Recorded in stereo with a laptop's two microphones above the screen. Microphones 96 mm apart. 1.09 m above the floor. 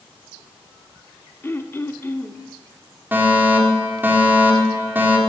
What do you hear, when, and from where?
1.4 s throat clearing: 25° left (ahead or behind), 1.0 m
3.1 s a fire alarm: 20° right (ahead or behind), 4.5 m